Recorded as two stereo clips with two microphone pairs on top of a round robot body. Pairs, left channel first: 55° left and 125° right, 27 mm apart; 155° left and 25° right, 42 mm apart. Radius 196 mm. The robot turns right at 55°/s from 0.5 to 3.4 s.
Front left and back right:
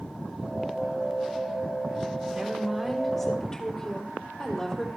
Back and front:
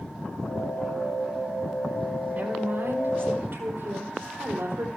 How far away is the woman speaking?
About 3 m.